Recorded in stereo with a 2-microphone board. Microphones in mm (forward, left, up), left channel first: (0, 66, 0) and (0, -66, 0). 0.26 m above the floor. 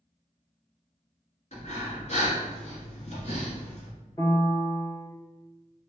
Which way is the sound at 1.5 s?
55° left (ahead or behind).